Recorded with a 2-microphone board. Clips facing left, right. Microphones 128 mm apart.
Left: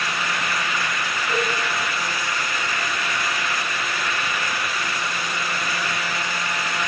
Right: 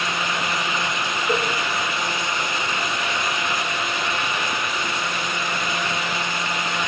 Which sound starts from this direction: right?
A cowbell, at 1.3 s.